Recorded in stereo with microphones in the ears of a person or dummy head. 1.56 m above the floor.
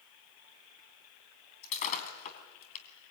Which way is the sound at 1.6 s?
45° left (ahead or behind).